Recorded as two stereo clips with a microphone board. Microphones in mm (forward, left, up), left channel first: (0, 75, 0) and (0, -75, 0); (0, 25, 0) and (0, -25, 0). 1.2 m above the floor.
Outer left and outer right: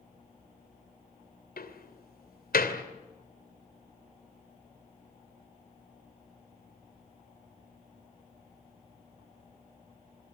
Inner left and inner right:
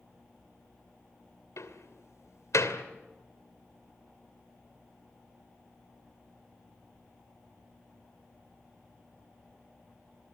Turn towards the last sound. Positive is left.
turn(degrees=80)